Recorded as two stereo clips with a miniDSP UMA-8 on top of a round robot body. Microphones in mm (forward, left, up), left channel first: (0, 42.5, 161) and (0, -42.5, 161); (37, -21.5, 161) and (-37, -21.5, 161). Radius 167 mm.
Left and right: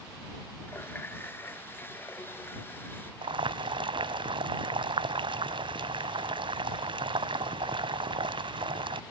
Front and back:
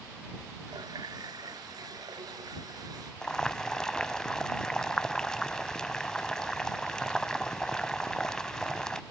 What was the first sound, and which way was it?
A running tap, 155° left.